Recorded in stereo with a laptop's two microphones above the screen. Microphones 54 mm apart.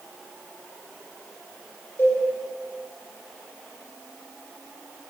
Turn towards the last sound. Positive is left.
turn(degrees=40)  # may be behind; listen again after turning